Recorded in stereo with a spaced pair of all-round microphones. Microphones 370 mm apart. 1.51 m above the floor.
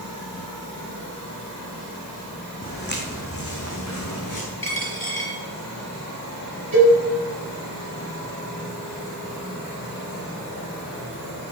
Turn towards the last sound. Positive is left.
turn(degrees=-60)  # may be behind; listen again after turning